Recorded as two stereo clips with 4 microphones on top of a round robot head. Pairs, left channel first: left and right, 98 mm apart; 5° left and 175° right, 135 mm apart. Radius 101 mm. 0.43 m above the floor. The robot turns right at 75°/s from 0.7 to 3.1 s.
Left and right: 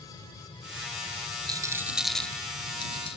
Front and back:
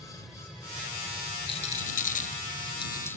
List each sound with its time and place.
0.0 s an aircraft: 90° left; by 3.2 s 85° right
1.5 s a rattle: 45° right; by 3.2 s 75° left